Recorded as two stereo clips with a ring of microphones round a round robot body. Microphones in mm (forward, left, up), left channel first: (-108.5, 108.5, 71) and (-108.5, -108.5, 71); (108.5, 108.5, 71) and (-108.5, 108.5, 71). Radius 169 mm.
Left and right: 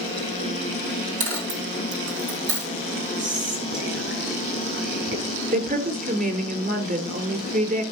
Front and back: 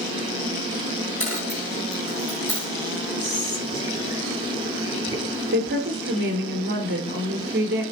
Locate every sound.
1.2 s a dropped coin: 65° right, 2.5 m
3.2 s whispering: 120° right, 7 m
5.5 s a woman speaking: 135° right, 3 m